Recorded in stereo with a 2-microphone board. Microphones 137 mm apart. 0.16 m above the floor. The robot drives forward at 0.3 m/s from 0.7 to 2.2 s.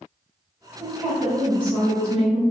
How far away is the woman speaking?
About 1.6 m.